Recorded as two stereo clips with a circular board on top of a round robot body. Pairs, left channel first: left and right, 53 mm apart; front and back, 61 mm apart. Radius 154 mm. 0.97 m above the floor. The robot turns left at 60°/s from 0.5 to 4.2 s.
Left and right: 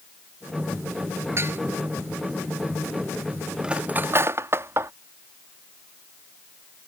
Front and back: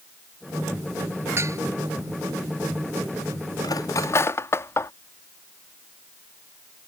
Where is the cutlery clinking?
15° right; by 4.9 s 50° right.